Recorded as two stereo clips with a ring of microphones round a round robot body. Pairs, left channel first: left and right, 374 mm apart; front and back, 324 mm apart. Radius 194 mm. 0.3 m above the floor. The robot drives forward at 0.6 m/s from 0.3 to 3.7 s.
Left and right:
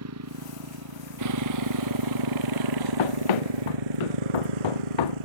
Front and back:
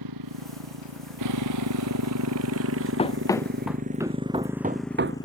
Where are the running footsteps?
70° left; by 5.3 s 130° left.